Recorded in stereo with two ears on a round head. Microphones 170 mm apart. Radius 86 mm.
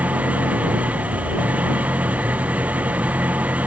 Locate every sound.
0.0 s an engine running: 10° right (ahead or behind)